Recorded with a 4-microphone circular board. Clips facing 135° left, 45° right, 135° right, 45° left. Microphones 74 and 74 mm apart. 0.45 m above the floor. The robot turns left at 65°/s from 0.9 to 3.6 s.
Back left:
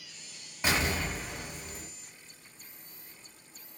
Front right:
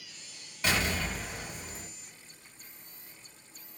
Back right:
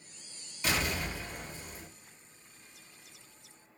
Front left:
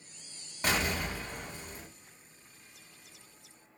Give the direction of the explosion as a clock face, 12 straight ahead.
10 o'clock.